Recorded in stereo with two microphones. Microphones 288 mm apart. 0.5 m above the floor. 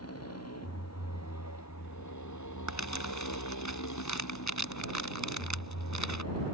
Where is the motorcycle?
55° left (ahead or behind).